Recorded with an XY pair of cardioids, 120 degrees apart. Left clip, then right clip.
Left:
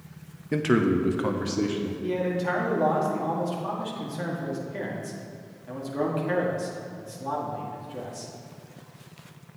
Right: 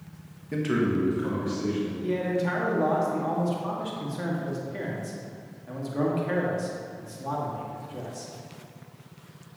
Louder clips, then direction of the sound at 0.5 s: Left 3 dB; 35° left.